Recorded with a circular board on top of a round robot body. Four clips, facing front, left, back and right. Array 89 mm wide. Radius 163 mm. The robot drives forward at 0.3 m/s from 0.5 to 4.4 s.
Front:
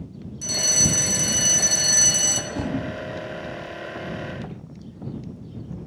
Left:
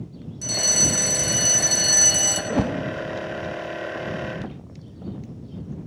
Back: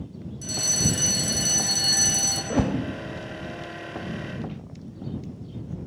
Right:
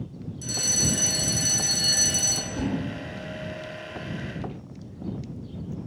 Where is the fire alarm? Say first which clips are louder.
Left 4 dB, front 2 dB; 40° left, 4 m; by 2.4 s 45° left, 3.5 m.